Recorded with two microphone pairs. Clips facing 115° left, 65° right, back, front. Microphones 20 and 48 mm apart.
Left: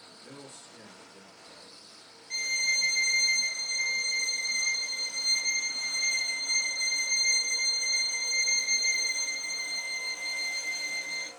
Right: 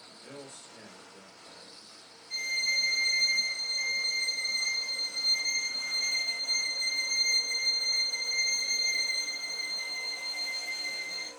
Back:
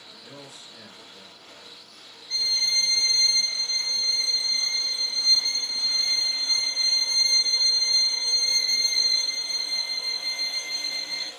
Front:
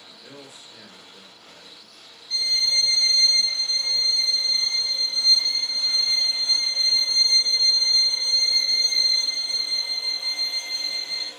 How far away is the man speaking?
About 2 m.